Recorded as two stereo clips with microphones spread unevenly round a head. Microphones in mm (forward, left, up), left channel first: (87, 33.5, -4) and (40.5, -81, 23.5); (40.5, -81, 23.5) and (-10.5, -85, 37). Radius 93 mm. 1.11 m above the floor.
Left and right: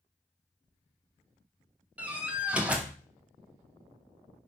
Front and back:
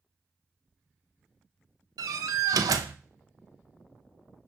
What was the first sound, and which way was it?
A door slam, 165° left.